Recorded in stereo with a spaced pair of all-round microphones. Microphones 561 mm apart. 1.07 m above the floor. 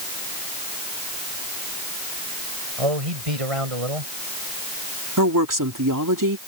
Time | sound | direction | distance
2.8 | a man speaking | 75° right (ahead or behind) | ?
5.2 | a woman speaking | 35° right (ahead or behind) | ?